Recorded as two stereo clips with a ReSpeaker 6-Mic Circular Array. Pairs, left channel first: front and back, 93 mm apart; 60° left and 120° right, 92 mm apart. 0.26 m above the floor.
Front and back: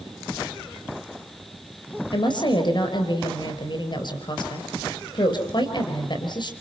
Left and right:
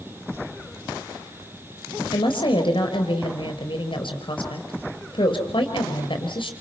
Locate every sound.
2.1 s a woman speaking: 35° left, 4.5 m